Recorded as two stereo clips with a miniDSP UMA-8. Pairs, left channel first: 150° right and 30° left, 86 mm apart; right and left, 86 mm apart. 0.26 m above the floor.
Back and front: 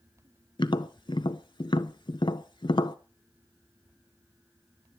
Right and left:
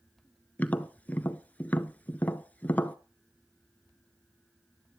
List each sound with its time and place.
0.6 s tapping: 160° right, 0.6 m